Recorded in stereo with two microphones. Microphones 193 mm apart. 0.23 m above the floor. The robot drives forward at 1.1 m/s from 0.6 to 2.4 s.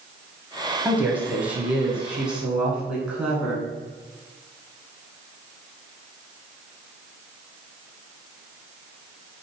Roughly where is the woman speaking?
Centre.